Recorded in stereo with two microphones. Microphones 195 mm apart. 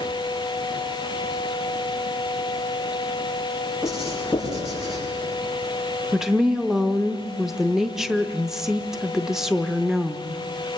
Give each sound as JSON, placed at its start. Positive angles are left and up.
{"t": 3.8, "sound": "writing", "side_deg": -5, "distance_m": 10.0}
{"t": 6.1, "sound": "a woman speaking", "side_deg": 0, "distance_m": 0.6}